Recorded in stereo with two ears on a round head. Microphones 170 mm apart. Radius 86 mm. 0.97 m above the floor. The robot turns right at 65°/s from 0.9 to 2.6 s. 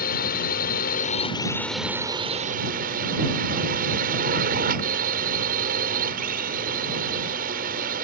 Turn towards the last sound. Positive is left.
turn(degrees=-125)